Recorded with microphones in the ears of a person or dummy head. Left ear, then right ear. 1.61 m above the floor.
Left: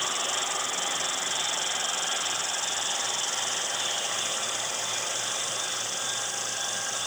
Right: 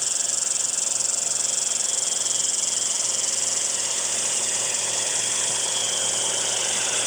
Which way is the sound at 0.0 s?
20° right (ahead or behind).